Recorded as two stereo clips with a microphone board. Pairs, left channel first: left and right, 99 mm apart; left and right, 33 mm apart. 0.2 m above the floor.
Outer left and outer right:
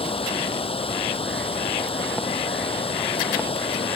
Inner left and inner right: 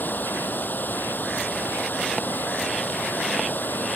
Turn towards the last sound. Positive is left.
turn(degrees=75)  # may be behind; listen again after turning